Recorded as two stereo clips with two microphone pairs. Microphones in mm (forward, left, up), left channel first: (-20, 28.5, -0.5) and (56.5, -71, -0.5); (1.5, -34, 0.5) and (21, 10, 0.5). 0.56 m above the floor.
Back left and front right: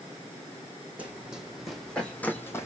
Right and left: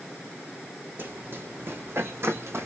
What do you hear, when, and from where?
1.0 s running footsteps: 25° left, 1.6 m; by 2.7 s 60° left, 1.4 m